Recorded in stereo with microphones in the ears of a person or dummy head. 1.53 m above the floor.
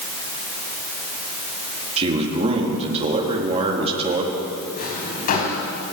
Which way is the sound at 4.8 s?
50° left (ahead or behind).